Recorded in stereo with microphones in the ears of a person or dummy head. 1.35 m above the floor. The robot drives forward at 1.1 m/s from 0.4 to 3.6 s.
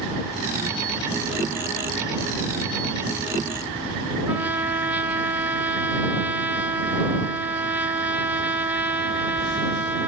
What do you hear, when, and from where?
4.3 s a trumpet: 10° right (ahead or behind), 0.5 m